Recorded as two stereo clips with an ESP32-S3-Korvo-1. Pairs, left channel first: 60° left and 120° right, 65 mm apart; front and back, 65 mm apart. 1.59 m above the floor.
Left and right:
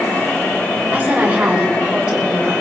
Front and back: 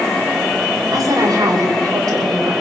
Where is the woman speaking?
175° left, 8 m; by 2.5 s 165° left, 6.5 m.